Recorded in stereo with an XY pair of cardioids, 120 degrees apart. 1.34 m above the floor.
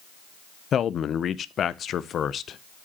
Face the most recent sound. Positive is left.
turn(degrees=45)